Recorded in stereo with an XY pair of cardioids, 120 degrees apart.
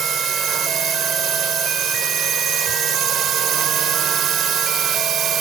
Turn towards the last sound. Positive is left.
turn(degrees=-60)